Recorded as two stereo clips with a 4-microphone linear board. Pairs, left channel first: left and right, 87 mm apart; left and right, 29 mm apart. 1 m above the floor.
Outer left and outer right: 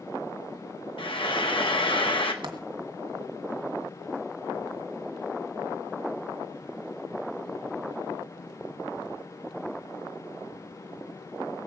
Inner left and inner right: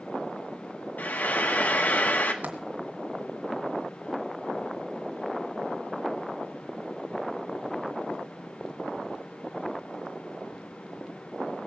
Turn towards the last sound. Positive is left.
turn(degrees=-65)  # may be behind; listen again after turning